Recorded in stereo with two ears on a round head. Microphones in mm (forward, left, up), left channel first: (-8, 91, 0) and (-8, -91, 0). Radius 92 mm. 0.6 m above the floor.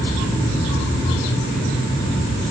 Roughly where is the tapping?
No tapping in this recording.